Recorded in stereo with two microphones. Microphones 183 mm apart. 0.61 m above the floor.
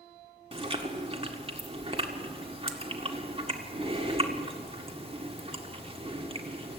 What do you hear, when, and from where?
0.5 s chewing: 30° right (ahead or behind), 1.8 m